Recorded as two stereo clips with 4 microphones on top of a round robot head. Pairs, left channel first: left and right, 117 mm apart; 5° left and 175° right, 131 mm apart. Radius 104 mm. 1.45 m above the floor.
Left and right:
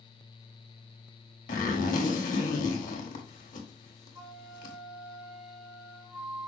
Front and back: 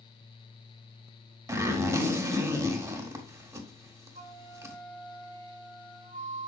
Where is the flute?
160° right, 1.0 m.